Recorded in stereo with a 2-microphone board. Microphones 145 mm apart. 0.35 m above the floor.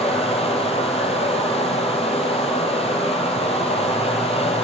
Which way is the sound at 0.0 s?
45° left (ahead or behind).